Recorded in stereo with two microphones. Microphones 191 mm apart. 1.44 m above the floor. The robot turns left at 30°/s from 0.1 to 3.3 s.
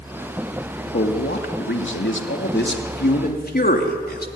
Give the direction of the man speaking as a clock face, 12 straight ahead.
8 o'clock.